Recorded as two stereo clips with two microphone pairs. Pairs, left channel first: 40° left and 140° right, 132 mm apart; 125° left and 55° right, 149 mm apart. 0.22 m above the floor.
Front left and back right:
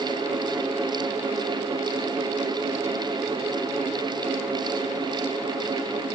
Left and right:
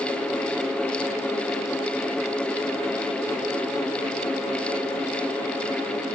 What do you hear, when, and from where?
Only background noise.